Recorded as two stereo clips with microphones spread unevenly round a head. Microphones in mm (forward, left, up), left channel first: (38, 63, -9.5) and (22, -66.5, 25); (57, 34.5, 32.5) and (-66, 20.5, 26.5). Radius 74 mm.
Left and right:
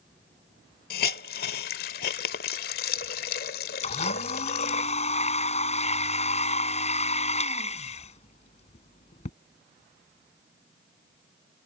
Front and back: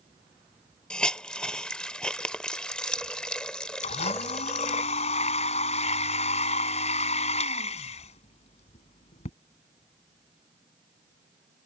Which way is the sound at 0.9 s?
85° left.